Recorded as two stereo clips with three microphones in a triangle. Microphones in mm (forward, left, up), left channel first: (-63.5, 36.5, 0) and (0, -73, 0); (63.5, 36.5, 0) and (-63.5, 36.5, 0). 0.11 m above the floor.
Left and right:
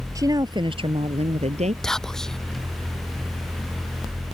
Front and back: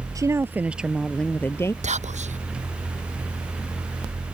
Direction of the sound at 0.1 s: 120° right.